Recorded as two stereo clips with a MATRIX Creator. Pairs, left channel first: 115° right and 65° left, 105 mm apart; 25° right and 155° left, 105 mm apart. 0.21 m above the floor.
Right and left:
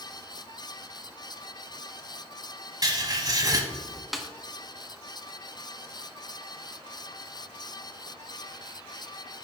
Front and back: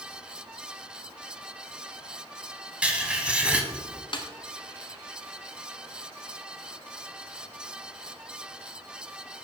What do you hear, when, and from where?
2.8 s writing: 85° left, 1.0 m
4.1 s a snare drum: 20° right, 1.0 m